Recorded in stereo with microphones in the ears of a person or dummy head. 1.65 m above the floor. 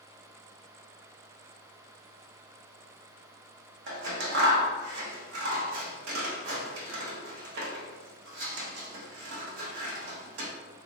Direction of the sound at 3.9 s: 65° right (ahead or behind).